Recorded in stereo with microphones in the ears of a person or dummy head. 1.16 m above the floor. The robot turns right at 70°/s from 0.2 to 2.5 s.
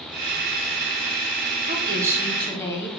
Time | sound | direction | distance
1.7 | a woman speaking | 50° right | 1.1 m